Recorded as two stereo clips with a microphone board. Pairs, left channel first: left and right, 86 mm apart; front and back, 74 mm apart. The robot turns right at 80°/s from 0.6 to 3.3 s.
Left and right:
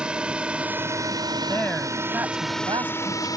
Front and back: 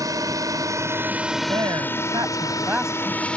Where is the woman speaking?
150° left; by 3.4 s 65° right.